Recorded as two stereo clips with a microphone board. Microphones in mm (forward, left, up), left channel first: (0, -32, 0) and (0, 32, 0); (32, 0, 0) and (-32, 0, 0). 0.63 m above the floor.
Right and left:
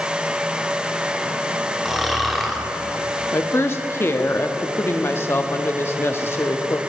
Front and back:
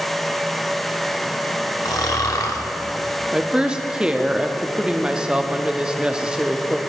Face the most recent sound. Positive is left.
turn(degrees=-110)